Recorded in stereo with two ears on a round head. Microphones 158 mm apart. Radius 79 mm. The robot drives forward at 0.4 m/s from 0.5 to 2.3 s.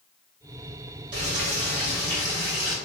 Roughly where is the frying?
Right.